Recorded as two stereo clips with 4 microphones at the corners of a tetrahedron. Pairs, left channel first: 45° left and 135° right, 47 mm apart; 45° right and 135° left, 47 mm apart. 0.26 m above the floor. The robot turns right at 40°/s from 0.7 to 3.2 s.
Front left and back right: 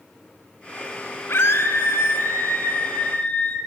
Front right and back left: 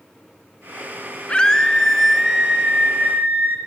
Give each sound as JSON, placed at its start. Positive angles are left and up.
{"t": 1.3, "sound": "a scream", "azimuth_deg": 20, "distance_m": 2.5}